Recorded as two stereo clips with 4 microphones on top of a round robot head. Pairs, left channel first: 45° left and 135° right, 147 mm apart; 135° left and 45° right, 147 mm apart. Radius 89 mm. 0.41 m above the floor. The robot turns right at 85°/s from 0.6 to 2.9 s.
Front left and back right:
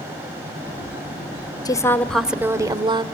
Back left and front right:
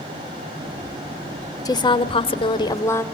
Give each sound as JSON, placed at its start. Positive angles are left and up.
{"t": 1.6, "sound": "a woman speaking", "azimuth_deg": 90, "distance_m": 1.6}